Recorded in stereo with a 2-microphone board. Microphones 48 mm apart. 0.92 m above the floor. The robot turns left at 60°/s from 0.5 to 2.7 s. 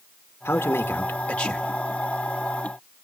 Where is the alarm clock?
I don't hear an alarm clock.